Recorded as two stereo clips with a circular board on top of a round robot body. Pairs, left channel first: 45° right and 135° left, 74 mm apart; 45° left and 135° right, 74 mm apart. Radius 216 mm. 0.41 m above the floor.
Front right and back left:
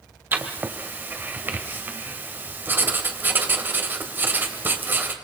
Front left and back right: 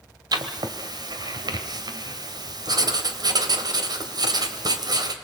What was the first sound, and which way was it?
Writing, 160° right.